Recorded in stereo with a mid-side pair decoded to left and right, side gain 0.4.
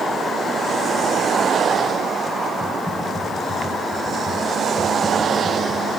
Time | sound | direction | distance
2.6 | typing on a keyboard | 10° right | 5 m